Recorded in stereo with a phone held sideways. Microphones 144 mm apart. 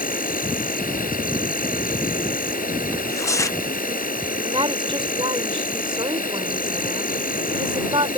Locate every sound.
0.0 s an insect: 80° left
2.9 s tearing paper: 20° left (ahead or behind)
4.4 s a woman speaking: 35° right (ahead or behind)